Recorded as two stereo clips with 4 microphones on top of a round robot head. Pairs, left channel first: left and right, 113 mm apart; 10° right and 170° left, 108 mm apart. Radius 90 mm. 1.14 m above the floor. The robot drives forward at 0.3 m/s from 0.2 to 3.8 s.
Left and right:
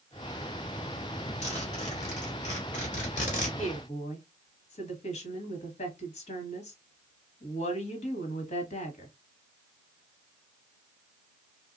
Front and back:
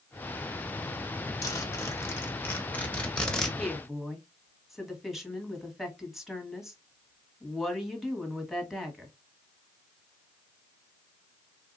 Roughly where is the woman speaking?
Left.